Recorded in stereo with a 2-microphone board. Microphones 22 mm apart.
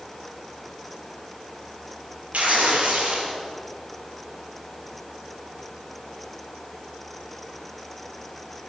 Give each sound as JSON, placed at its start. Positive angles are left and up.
{"t": 2.3, "sound": "tearing paper", "side_deg": -85, "distance_m": 6.5}